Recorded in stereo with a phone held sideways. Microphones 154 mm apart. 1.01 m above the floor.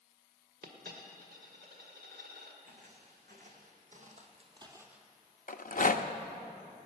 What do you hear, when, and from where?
0.6 s a dropped coin: 80° right, 1.6 m
2.6 s footsteps: 60° right (ahead or behind), 3.5 m; by 5.1 s centre (ahead or behind), 1.4 m
5.5 s a rattle: 60° left (ahead or behind), 0.6 m